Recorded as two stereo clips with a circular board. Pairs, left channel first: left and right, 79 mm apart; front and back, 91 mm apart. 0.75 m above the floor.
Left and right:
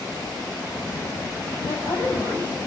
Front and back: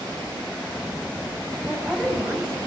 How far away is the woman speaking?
About 6 m.